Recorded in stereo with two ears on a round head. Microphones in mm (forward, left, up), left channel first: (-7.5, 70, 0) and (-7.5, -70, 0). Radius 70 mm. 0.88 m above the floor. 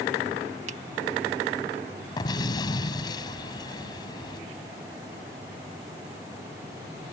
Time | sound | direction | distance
0.7 | a finger snap | 50° right (ahead or behind) | ?
2.2 | an explosion | 25° left (ahead or behind) | ?